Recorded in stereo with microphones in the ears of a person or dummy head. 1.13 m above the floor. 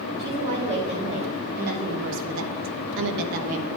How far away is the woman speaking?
About 2.5 m.